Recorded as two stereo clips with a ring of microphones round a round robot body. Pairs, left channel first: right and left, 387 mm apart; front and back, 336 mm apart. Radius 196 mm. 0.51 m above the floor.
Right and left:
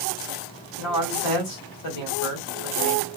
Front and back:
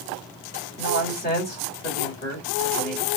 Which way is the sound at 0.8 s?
55° right.